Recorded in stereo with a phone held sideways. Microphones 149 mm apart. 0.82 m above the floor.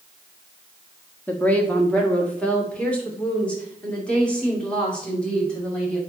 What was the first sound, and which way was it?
A woman speaking, 10° left (ahead or behind).